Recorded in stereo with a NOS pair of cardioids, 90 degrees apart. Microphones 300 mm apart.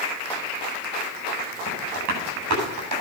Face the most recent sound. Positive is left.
turn(degrees=-65)